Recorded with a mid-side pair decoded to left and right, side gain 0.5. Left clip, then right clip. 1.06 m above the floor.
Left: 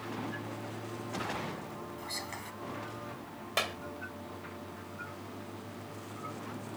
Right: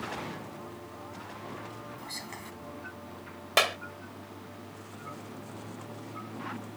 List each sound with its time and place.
2.0 s whispering: straight ahead
3.6 s a clap: 50° right